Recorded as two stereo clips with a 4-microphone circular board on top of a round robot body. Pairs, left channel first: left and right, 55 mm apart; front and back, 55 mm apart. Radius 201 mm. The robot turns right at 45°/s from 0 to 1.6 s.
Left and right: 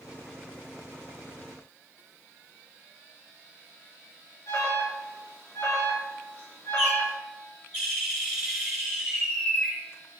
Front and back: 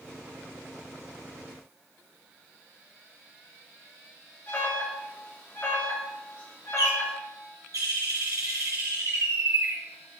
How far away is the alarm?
About 3 m.